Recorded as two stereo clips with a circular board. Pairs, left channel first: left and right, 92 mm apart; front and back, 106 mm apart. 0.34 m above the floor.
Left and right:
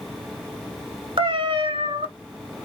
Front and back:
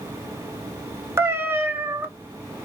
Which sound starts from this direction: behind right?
A cat meowing, at 1.2 s.